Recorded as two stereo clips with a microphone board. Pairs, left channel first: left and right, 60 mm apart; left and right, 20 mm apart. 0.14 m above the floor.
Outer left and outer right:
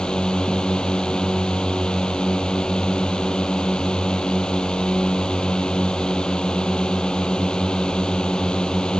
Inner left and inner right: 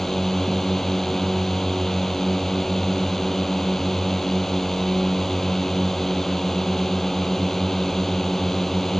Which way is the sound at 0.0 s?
15° left (ahead or behind).